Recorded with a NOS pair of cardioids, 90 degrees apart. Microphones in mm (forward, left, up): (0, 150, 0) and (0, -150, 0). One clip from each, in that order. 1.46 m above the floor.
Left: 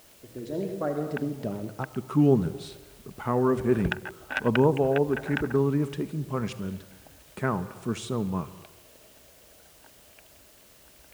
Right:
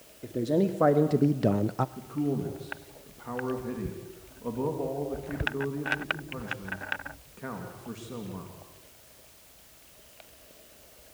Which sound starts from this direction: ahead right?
A man speaking, at 0.2 s.